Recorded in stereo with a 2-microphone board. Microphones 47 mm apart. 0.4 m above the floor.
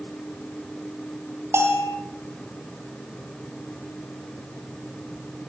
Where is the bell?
65° right (ahead or behind), 5 m.